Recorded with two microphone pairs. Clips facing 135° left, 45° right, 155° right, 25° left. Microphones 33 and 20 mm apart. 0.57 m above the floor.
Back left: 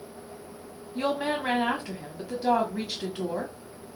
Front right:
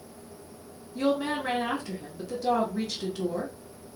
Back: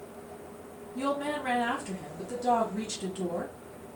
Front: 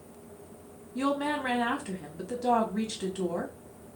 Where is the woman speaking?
85° left, 1.3 m.